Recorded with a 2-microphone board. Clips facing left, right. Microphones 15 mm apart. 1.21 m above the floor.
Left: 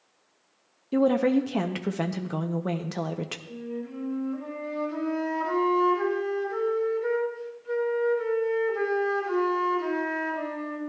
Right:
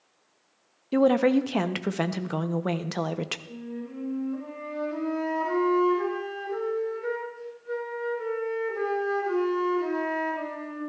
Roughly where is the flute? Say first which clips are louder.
Left 2 dB; centre.